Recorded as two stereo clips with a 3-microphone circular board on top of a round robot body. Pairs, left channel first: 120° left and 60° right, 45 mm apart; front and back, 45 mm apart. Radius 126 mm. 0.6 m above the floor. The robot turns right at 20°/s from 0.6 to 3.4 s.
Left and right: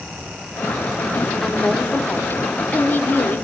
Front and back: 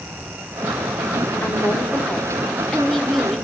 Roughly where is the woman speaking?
Ahead left.